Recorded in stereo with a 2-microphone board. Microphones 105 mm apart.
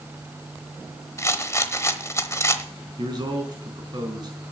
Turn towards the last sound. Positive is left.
turn(degrees=-45)  # may be behind; listen again after turning